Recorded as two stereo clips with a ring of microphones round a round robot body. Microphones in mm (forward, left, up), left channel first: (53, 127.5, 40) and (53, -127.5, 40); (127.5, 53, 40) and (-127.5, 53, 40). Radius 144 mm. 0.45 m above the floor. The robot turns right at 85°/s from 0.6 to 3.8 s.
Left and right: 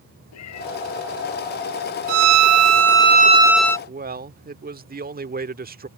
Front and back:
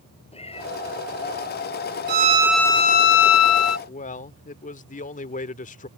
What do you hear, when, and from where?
0.3 s a cat meowing: 65° left; by 0.7 s 75° left
2.1 s a violin: 130° right; by 3.8 s 15° left
3.9 s a man speaking: 50° right